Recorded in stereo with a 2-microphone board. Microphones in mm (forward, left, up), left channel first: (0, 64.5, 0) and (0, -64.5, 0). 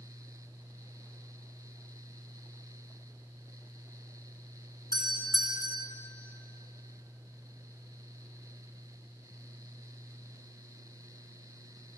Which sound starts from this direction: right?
A doorbell, at 4.9 s.